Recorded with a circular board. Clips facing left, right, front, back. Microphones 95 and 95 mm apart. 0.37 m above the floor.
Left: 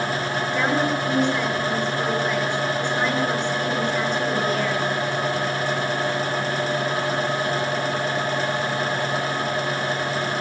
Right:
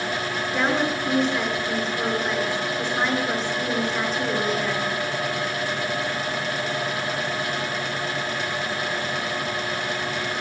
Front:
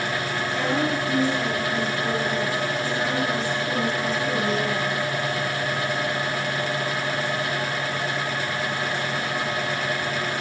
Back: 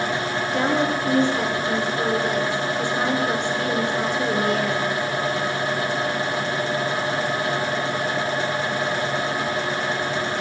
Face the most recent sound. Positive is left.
turn(degrees=-175)